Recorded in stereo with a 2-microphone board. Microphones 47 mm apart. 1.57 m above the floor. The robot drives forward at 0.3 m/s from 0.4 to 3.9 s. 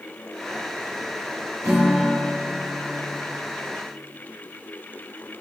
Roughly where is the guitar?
Right.